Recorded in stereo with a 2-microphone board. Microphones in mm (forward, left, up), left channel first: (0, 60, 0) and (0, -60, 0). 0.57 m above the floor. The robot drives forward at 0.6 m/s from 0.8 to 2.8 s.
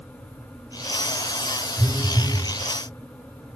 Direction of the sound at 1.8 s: 5° left (ahead or behind).